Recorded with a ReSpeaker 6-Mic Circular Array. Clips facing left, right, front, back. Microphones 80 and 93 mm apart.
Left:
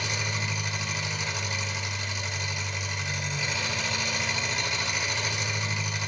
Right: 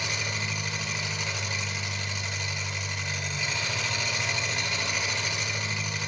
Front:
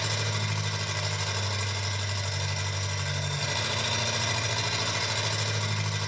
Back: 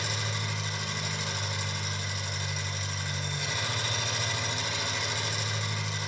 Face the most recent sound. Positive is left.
turn(degrees=10)